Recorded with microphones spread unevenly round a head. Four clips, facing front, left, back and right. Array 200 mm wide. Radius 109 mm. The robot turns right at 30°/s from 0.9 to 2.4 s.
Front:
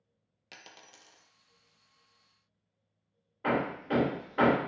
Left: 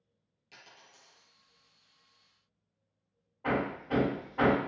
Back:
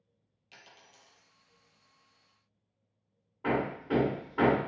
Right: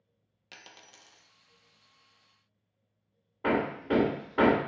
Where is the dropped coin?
30° right, 0.5 m; by 1.3 s 20° right, 0.5 m.